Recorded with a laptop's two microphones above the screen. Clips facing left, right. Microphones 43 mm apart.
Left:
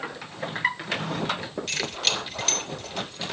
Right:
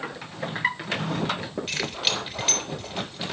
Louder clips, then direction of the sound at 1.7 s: Even; 10° right (ahead or behind).